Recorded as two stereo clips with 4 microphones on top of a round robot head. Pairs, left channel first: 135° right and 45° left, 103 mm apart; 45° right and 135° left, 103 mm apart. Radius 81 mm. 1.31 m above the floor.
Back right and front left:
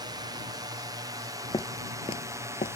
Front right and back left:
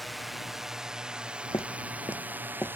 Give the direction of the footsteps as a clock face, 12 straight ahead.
3 o'clock.